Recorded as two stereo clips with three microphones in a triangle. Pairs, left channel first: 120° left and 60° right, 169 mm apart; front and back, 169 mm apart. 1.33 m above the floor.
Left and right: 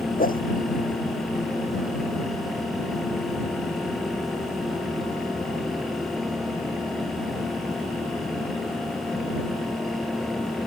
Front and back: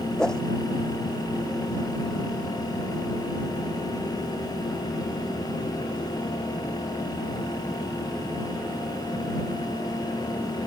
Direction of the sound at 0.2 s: 85° left.